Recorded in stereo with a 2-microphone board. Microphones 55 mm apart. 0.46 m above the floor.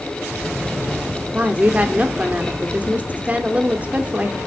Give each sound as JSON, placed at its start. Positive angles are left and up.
{"t": 1.3, "sound": "a woman speaking", "side_deg": -30, "distance_m": 0.8}